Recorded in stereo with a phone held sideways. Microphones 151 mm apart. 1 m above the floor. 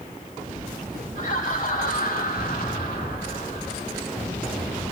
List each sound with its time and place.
1.1 s laughter: 55° left (ahead or behind), 3.5 m; by 4.0 s 80° left, 1.7 m